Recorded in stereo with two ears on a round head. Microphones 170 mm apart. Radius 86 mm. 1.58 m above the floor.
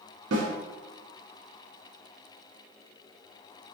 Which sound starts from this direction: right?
A snare drum, at 0.3 s.